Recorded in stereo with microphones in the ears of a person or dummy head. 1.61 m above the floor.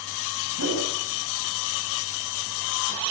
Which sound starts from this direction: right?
A whoosh, at 0.6 s.